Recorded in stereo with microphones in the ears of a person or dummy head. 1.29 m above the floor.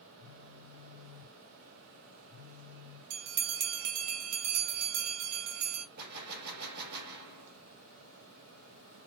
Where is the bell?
70° right (ahead or behind), 0.9 m.